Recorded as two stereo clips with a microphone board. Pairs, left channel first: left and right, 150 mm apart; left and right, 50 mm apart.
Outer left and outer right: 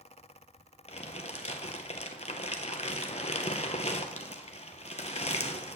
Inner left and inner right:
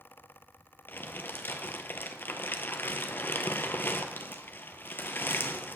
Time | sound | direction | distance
0.9 | crumpling | 45° left (ahead or behind) | 0.6 m